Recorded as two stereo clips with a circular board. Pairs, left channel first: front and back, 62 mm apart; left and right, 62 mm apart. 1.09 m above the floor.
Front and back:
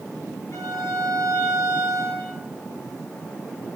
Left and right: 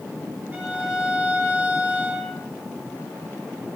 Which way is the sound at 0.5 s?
30° right.